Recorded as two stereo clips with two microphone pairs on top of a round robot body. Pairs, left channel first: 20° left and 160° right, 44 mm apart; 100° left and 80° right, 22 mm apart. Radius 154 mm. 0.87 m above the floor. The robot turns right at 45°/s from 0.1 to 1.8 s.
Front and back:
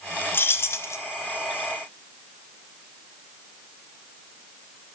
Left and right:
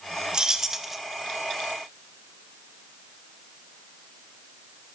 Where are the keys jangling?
20° right, 0.5 m; by 1.0 s 10° left, 0.5 m.